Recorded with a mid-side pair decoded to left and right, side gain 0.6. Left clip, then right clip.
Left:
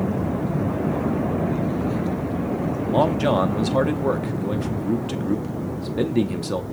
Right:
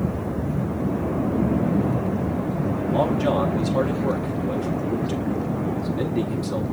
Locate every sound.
2.9 s a man speaking: 30° left, 0.7 m